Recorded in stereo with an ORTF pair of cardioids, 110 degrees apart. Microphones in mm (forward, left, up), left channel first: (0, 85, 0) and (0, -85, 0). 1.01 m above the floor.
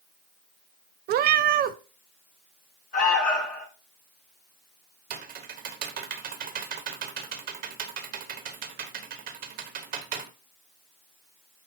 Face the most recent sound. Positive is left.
turn(degrees=-60)